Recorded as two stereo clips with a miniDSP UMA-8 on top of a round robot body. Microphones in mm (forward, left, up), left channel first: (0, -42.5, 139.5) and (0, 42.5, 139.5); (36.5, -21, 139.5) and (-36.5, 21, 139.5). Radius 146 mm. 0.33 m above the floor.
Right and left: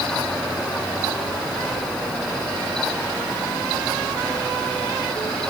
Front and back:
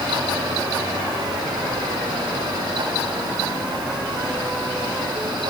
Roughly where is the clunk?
I don't hear a clunk.